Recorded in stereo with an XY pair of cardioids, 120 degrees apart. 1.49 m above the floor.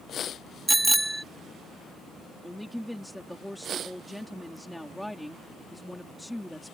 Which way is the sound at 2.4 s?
5° left.